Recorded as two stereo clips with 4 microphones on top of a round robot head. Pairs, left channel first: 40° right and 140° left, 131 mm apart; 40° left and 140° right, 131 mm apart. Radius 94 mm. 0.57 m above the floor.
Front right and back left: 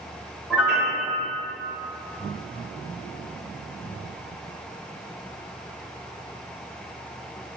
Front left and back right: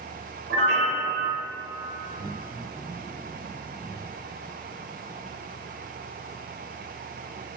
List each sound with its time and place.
0.5 s a piano: 140° right, 0.9 m